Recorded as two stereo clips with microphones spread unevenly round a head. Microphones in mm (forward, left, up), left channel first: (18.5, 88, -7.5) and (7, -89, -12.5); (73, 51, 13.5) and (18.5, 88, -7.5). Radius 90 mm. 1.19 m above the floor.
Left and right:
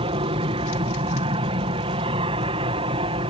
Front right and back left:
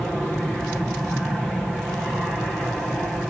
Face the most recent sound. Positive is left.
turn(degrees=-125)